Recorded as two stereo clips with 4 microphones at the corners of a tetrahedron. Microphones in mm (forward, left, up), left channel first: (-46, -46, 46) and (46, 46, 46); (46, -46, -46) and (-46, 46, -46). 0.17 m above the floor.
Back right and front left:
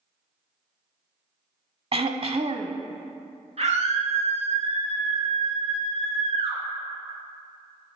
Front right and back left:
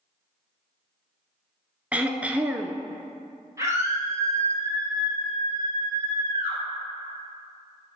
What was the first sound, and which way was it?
Throat clearing, 60° left.